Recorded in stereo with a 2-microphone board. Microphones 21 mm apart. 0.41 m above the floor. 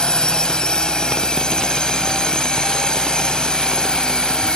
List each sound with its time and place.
0.0 s a drone: 45° left (ahead or behind)